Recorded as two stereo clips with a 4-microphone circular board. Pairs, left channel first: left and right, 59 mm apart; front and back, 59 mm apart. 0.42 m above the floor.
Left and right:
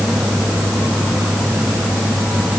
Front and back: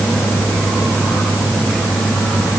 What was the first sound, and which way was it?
Only background noise.